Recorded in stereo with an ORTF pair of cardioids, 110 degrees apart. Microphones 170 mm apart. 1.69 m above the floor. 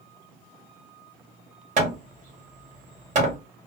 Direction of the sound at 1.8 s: 45° right.